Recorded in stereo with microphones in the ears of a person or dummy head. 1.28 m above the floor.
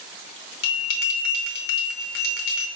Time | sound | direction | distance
0.6 | a bell | 60° left (ahead or behind) | 0.8 m